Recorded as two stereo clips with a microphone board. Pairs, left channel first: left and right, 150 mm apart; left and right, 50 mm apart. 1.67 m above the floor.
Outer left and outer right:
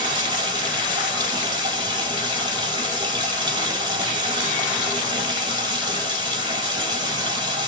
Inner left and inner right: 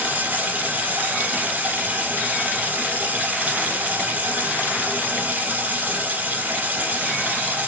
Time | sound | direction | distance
0.0 | running water | 35° right (ahead or behind) | 4 m